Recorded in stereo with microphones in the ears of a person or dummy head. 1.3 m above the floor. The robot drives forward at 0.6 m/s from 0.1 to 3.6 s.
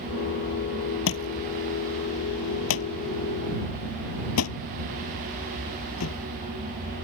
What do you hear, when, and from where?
1.1 s a thud: 75° left (ahead or behind); by 6.2 s 80° left